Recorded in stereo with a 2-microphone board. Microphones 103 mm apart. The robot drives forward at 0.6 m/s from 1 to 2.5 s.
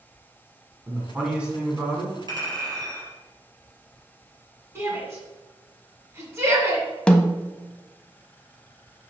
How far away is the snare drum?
About 0.7 m.